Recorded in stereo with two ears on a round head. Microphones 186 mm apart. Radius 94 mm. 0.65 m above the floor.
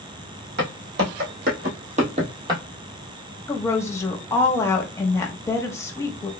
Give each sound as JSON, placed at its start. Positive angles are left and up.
{"t": 0.6, "sound": "footsteps", "side_deg": -55, "distance_m": 2.0}
{"t": 3.5, "sound": "a woman speaking", "side_deg": 15, "distance_m": 0.8}